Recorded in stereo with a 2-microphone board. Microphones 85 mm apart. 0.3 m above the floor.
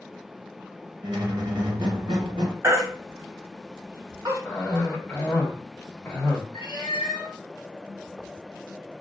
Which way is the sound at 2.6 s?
35° right (ahead or behind).